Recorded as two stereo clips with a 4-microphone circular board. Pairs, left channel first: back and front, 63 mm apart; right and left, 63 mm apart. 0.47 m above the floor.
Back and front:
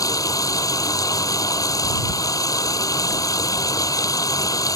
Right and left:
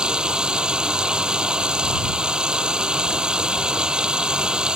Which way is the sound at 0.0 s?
165° left.